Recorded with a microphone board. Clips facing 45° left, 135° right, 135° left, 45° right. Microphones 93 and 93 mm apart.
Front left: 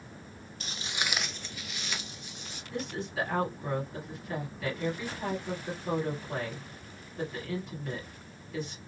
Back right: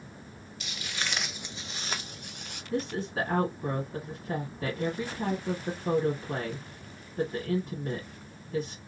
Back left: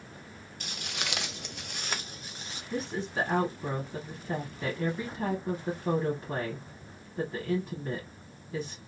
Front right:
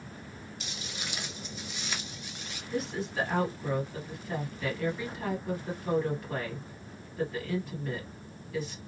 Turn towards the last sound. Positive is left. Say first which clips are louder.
# back right 4 dB, even
turn(degrees=-175)